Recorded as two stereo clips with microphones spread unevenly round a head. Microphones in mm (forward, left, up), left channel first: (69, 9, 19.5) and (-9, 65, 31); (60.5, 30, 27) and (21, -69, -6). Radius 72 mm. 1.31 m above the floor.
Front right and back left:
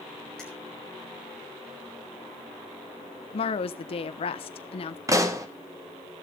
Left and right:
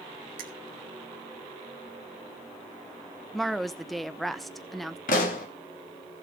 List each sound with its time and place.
0.4 s a finger snap: 125° right, 1.4 m
3.3 s a woman speaking: 25° right, 1.0 m
5.1 s a pop: 85° left, 1.6 m